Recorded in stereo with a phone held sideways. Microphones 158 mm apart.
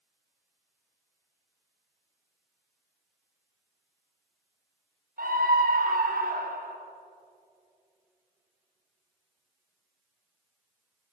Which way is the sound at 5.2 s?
65° right (ahead or behind).